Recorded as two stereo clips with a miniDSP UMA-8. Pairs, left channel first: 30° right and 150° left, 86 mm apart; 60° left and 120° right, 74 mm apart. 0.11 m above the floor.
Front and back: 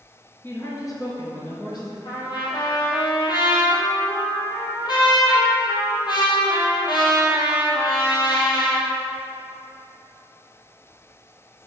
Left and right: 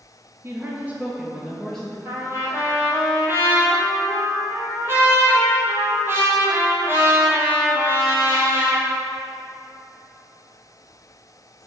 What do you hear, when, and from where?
0.4 s a woman speaking: 80° right, 1.6 m; by 1.9 s 15° right, 1.9 m
2.0 s a trumpet: 60° right, 1.8 m